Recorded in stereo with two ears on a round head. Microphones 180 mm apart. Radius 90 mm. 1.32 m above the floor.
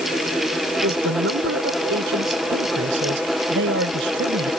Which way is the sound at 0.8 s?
70° right (ahead or behind).